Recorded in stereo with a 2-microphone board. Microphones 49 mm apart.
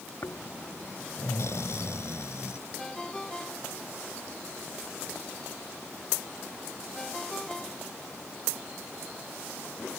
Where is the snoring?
65° left (ahead or behind).